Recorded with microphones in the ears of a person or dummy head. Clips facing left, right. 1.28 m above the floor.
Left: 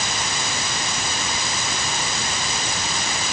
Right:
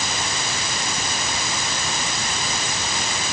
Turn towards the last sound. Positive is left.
No sound to turn to.